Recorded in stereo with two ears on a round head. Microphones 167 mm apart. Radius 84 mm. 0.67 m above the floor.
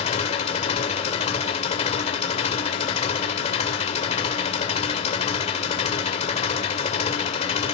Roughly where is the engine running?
Left.